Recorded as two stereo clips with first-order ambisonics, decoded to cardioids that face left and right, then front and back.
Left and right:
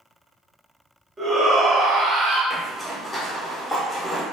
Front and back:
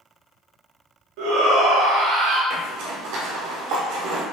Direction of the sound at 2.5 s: 170° left.